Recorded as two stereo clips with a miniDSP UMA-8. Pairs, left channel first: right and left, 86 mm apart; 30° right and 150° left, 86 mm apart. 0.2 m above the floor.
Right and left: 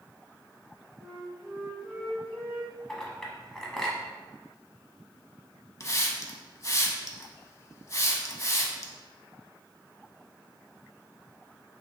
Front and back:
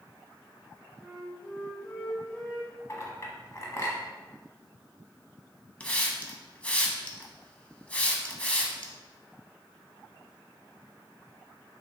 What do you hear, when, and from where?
1.0 s a flute: 20° left, 1.9 m
2.9 s a clink: 10° right, 0.8 m
5.8 s a hiss: 95° right, 0.6 m